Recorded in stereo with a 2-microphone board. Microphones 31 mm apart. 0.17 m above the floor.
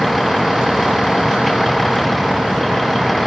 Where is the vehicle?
Centre (ahead or behind).